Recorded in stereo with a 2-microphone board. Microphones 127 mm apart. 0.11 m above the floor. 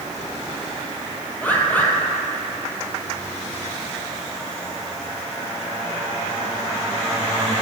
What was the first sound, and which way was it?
A bird, 15° left (ahead or behind).